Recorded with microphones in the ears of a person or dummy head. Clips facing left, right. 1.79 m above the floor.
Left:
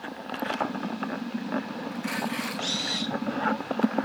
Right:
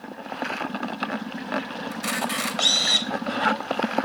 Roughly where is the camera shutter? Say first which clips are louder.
Right 2 dB; right.